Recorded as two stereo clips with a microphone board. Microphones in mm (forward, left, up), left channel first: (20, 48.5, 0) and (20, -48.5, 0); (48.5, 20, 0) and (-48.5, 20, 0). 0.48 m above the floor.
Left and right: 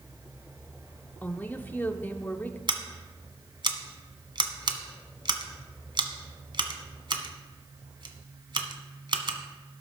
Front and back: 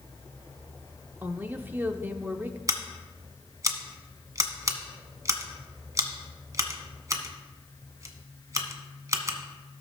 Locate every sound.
1.2 s a woman speaking: 135° left, 0.7 m
2.7 s scissors: 125° right, 1.1 m